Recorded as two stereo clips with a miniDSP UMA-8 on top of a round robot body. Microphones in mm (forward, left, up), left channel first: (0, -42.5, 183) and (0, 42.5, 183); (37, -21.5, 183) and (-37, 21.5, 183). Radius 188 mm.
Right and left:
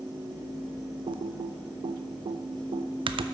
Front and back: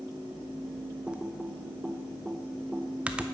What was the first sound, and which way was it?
Typing on a keyboard, 70° left.